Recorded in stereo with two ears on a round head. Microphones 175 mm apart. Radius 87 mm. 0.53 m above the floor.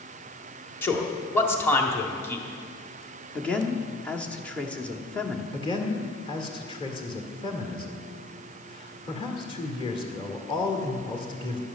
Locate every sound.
0.8 s a man speaking: 15° left (ahead or behind), 1.5 m
3.4 s a man speaking: 5° left (ahead or behind), 1.1 m
5.5 s a man speaking: 25° left (ahead or behind), 1.9 m